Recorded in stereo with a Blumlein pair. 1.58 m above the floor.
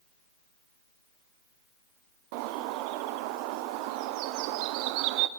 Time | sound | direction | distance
2.3 | a bird | 45° right | 0.7 m